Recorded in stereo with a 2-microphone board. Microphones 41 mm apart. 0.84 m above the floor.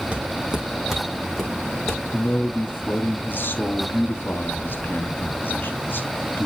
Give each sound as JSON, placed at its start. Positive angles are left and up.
{"t": 0.1, "sound": "footsteps", "side_deg": -30, "distance_m": 1.8}
{"t": 2.1, "sound": "a man speaking", "side_deg": 60, "distance_m": 1.7}